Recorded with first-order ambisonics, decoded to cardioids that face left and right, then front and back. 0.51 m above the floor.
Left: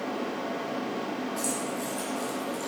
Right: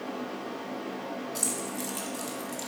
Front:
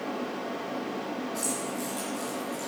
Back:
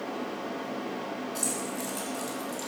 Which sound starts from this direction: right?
Keys jangling, at 1.4 s.